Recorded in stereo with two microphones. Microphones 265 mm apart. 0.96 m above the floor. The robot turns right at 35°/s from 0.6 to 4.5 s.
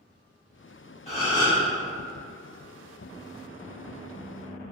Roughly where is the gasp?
Left.